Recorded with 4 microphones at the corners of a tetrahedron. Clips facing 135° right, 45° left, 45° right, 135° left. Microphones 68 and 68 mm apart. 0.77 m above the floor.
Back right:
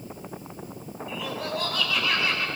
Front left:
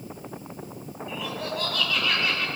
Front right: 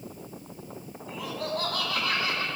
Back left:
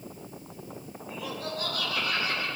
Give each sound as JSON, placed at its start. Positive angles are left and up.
{"t": 1.1, "sound": "laughter", "azimuth_deg": -45, "distance_m": 7.0}